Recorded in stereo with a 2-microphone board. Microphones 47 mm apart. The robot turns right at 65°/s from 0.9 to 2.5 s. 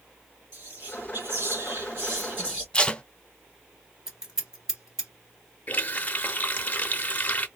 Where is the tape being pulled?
20° left (ahead or behind), 0.5 m.